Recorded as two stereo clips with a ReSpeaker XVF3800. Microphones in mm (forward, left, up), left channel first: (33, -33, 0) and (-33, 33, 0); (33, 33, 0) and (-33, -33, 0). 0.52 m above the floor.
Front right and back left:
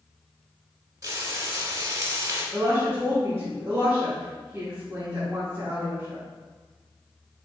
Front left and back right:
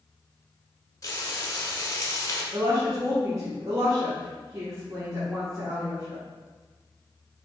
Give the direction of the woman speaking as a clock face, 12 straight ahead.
6 o'clock.